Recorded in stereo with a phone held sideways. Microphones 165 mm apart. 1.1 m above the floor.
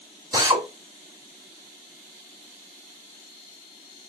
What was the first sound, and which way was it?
A drill, 20° right (ahead or behind).